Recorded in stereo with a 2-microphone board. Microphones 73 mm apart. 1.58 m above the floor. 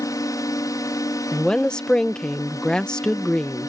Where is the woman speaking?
10° left (ahead or behind).